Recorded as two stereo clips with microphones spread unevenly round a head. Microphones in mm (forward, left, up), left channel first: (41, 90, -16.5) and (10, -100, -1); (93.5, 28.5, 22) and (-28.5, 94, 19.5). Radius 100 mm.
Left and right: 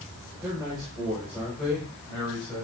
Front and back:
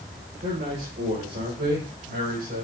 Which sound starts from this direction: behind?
A man speaking, at 0.4 s.